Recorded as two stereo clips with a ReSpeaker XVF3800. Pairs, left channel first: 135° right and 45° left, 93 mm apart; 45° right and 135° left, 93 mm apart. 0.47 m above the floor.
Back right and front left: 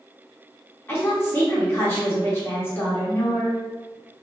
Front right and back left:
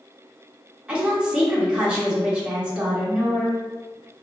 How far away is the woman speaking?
About 1.3 m.